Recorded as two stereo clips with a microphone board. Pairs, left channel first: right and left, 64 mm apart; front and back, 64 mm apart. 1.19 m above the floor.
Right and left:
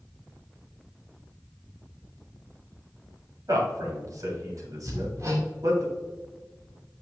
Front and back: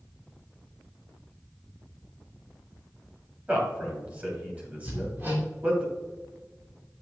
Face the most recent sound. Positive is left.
turn(degrees=125)